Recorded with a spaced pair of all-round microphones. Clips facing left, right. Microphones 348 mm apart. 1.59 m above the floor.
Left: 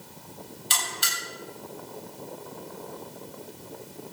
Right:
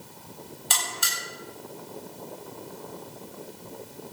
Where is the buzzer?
60° right (ahead or behind), 8 m.